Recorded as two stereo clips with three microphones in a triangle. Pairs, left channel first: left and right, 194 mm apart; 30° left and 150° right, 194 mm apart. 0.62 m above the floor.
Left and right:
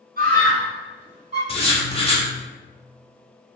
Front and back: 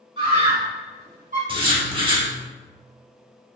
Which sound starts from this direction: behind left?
Writing, at 1.5 s.